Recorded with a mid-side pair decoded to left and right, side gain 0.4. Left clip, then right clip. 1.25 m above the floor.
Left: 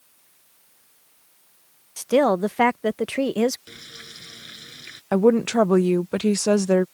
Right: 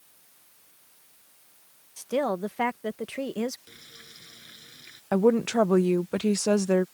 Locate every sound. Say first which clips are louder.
2.0 s a woman speaking: left 8 dB; 60° left
3.7 s frying: left 8 dB; 60° left
5.1 s a woman speaking: left 4 dB; 35° left